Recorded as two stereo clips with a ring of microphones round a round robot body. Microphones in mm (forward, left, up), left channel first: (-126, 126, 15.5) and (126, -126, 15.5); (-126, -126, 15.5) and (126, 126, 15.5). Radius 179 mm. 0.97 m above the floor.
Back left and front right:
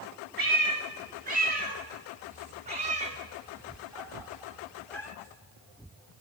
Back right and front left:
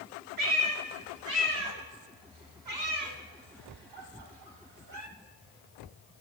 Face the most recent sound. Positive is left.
turn(degrees=55)